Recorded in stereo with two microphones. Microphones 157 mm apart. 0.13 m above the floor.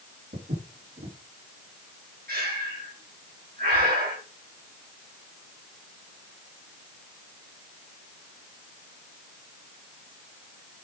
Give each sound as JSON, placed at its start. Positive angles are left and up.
{"t": 0.3, "sound": "footsteps", "side_deg": -80, "distance_m": 4.5}
{"t": 2.3, "sound": "breathing", "side_deg": -75, "distance_m": 3.5}